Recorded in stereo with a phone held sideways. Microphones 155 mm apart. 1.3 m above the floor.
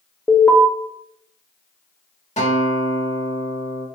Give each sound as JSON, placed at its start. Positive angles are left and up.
{"t": 0.3, "sound": "an alarm", "side_deg": 10, "distance_m": 0.7}
{"t": 2.4, "sound": "a guitar", "side_deg": 45, "distance_m": 1.2}